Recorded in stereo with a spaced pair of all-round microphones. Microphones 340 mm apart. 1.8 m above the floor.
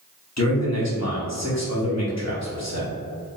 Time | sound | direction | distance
0.4 | a man speaking | 50° left (ahead or behind) | 1.0 m